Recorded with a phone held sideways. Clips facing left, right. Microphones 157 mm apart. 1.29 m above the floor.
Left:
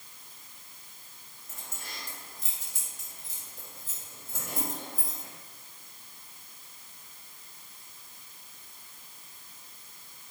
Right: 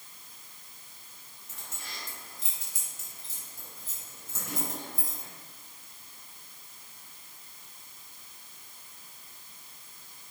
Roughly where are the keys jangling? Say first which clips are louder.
Left 1 dB; left.